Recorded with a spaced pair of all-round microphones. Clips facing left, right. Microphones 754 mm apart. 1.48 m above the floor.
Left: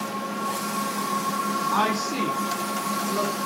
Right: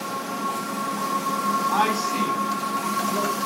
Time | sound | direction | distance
1.7 | a woman speaking | 25° right (ahead or behind) | 4 m